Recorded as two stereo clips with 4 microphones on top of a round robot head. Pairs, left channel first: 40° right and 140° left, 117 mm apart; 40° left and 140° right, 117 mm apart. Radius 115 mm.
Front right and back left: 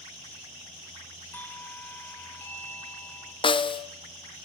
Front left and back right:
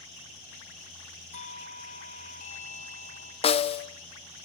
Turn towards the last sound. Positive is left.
turn(degrees=5)